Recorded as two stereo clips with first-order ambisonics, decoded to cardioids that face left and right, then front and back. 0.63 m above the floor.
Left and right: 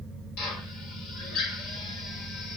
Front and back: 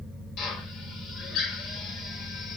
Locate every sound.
0.4 s a drill: 50° left, 2 m